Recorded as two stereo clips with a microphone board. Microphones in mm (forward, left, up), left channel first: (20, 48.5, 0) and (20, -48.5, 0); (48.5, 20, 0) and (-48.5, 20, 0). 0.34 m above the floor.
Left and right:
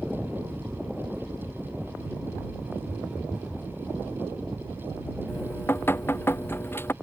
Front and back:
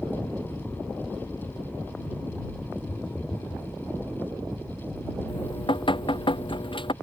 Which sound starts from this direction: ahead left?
Dripping, at 5.3 s.